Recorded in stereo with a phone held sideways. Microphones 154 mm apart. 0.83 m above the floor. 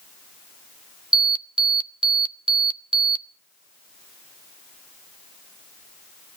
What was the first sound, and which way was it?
An alarm, 30° right (ahead or behind).